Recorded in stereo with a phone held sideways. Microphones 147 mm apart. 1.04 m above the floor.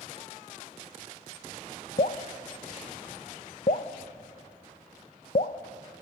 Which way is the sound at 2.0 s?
60° left (ahead or behind).